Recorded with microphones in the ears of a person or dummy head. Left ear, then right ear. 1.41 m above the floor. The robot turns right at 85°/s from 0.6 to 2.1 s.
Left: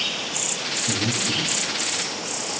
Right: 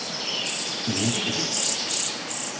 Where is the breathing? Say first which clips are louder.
Left 1 dB; 65° right (ahead or behind), 0.5 m; by 1.8 s 10° left (ahead or behind), 0.5 m.